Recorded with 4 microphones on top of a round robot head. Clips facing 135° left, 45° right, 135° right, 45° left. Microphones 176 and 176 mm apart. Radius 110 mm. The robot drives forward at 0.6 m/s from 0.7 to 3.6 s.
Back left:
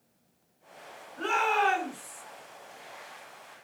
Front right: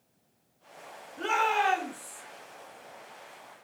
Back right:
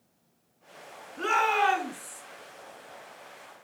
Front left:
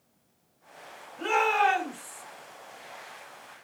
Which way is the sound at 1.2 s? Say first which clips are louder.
Even, front left 1 dB; 120° right.